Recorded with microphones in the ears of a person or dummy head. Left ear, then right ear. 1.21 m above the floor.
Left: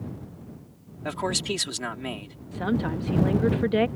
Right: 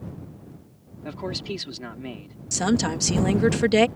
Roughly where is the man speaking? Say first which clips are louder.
Left 4 dB; left.